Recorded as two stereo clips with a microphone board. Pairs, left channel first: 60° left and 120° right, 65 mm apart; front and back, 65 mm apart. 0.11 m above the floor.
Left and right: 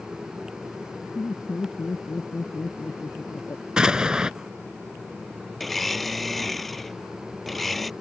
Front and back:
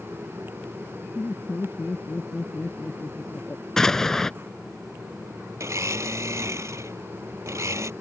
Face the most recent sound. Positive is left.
turn(degrees=145)